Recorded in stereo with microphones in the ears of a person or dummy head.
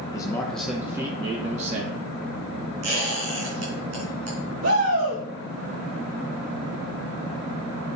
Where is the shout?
85° right, 6.5 m.